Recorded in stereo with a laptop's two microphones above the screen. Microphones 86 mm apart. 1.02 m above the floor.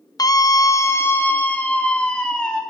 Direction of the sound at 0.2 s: 45° left (ahead or behind).